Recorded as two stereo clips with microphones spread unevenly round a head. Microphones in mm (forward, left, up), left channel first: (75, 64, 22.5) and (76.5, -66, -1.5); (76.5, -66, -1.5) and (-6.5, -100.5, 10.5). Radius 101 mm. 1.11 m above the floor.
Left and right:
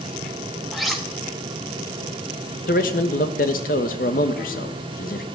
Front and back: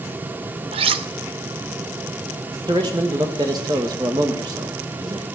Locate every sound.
0.7 s cutlery clinking: 175° left, 0.7 m
2.7 s a man speaking: 135° left, 1.2 m